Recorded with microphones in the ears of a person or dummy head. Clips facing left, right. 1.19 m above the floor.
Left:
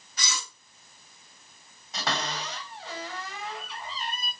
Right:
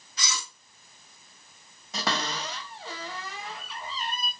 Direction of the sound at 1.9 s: 65° right (ahead or behind).